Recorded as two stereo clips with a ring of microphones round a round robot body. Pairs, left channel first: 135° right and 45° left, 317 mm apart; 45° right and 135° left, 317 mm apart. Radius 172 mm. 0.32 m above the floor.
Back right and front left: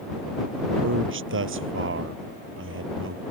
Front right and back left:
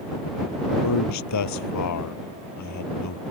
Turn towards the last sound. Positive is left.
turn(degrees=-10)